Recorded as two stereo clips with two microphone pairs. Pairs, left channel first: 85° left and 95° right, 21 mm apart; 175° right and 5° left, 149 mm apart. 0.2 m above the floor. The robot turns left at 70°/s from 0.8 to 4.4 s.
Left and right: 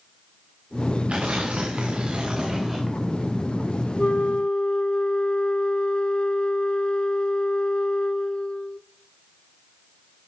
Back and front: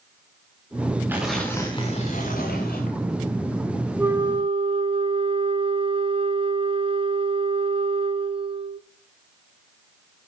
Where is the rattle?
I don't hear a rattle.